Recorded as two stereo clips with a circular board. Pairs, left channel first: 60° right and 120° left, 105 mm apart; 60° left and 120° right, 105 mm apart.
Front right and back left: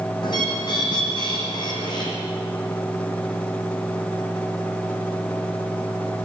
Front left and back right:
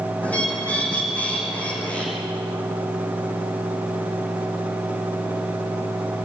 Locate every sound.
0.2 s a bird: 15° right, 5.5 m